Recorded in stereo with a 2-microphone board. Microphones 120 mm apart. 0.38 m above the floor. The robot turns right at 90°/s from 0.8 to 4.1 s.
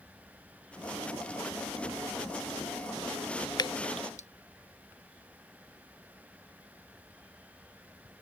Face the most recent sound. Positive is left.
turn(degrees=80)